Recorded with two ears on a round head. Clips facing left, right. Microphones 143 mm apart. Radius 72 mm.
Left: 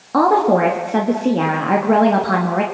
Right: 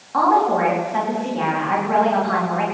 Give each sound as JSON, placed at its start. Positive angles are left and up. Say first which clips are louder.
{"t": 0.1, "sound": "a woman speaking", "louder": "left 3 dB", "side_deg": 60, "distance_m": 3.0}